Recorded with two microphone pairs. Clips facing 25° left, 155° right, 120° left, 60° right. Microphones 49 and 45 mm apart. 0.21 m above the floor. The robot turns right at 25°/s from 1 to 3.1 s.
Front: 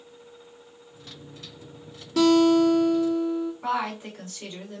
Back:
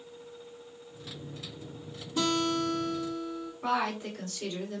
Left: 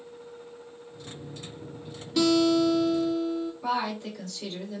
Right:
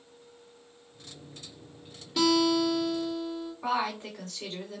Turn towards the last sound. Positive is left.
turn(degrees=-45)